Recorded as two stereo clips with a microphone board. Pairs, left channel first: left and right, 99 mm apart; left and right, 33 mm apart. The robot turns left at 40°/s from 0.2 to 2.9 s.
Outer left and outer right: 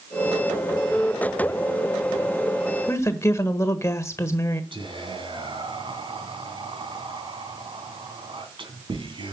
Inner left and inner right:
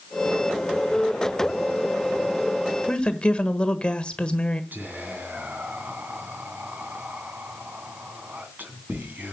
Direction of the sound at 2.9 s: 30° left (ahead or behind).